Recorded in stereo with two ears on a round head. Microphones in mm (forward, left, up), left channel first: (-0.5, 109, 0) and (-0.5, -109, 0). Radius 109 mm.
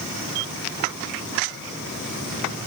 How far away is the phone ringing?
No phone ringing in this recording.